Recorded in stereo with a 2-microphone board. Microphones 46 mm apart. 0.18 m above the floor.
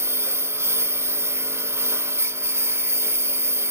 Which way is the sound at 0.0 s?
65° right (ahead or behind).